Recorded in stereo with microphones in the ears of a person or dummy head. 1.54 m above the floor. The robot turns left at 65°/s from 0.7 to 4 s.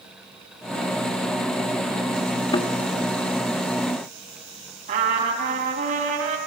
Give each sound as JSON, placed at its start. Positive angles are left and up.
{"t": 2.5, "sound": "a thud", "side_deg": 20, "distance_m": 1.6}
{"t": 4.9, "sound": "a trumpet", "side_deg": -40, "distance_m": 5.0}